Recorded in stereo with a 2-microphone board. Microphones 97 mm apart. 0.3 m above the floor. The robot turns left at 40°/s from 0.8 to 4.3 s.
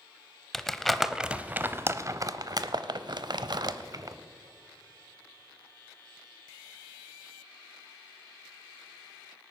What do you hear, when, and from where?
0.5 s crumpling: 5° left (ahead or behind), 0.6 m; by 4.2 s 40° right (ahead or behind), 0.6 m